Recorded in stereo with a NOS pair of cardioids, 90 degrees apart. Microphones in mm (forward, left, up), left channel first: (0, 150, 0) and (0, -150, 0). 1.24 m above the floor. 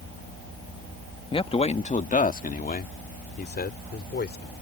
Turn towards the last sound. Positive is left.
turn(degrees=35)